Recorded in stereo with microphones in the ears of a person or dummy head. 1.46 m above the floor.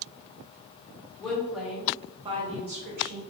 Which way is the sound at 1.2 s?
5° left (ahead or behind).